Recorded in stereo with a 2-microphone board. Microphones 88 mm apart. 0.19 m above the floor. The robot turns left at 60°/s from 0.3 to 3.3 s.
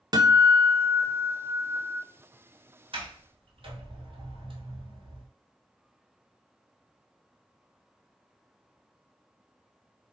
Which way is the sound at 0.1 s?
55° right.